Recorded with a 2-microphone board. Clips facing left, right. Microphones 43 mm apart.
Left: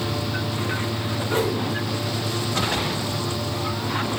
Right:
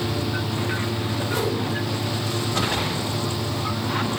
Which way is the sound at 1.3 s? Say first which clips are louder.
Left 3 dB; 40° left (ahead or behind).